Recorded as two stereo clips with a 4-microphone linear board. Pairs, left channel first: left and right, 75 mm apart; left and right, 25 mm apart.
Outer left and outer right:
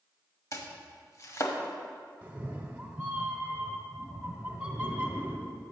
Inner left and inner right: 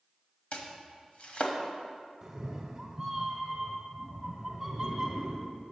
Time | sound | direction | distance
0.5 | chopping | 45° left (ahead or behind) | 1.0 m
2.2 | a cat meowing | 20° right (ahead or behind) | 0.8 m